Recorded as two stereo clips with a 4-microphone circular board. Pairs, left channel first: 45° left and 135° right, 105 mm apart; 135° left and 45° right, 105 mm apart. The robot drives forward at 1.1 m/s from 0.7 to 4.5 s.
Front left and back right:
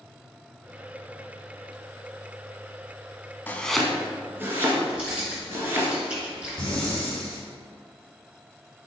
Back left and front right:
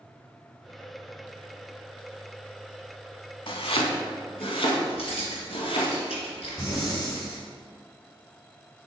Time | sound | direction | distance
3.5 | chopping | 115° left | 0.7 m
4.9 | keys jangling | 145° left | 2.5 m
6.6 | breathing | 125° left | 1.9 m